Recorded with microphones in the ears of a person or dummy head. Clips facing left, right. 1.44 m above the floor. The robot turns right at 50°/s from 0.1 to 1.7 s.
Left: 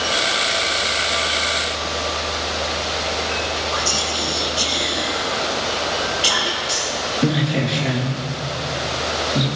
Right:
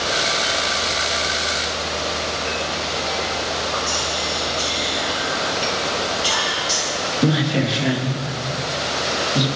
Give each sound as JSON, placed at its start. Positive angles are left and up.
{"t": 3.7, "sound": "whispering", "side_deg": 75, "distance_m": 1.7}
{"t": 6.7, "sound": "a woman speaking", "side_deg": -5, "distance_m": 2.5}